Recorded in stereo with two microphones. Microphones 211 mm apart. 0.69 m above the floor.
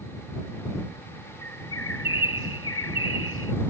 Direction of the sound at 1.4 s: 80° left.